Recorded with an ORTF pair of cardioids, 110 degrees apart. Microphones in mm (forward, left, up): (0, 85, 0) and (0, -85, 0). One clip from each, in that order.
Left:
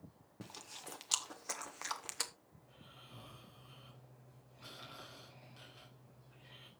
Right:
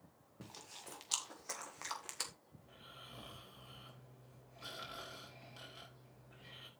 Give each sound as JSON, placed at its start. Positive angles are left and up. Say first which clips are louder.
{"t": 0.4, "sound": "chewing", "louder": "left 2 dB", "azimuth_deg": 20, "distance_m": 1.4}
{"t": 2.6, "sound": "snoring", "louder": "right 4 dB", "azimuth_deg": -30, "distance_m": 4.5}